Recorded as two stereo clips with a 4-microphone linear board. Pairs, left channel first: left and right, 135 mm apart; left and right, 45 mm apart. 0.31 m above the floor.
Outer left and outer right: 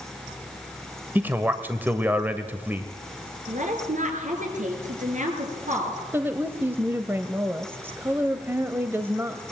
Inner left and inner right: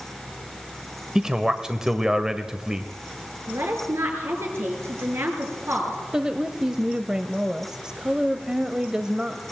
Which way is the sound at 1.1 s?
15° right (ahead or behind).